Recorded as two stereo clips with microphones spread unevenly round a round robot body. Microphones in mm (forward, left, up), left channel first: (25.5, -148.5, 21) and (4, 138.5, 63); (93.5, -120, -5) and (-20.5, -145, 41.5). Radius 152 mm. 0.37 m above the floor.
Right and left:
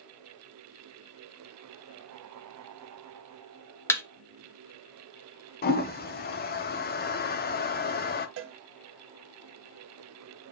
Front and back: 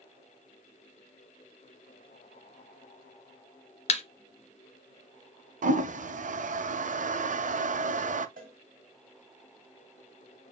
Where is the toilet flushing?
145° right, 0.6 m.